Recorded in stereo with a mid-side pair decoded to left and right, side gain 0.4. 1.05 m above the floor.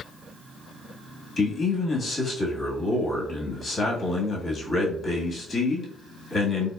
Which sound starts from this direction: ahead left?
A man speaking, at 1.4 s.